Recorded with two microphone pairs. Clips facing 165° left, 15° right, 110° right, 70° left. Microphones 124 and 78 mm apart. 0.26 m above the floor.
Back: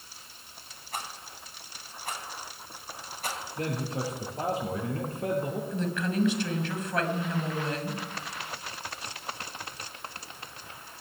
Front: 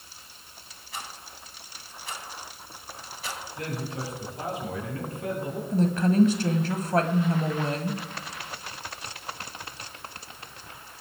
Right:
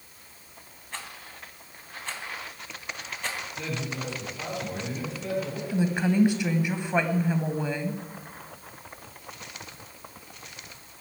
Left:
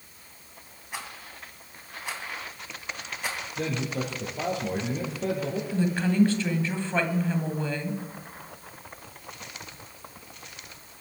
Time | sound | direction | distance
0.9 | a rattle | 150° left | 2.5 m
3.6 | a man speaking | 110° left | 5.5 m
5.7 | a woman speaking | 40° right | 1.6 m